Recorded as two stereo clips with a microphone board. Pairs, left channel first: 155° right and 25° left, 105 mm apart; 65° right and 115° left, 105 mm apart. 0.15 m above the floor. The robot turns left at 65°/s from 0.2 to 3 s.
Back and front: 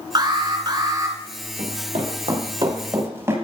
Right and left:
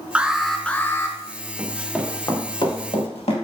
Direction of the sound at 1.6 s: 40° left.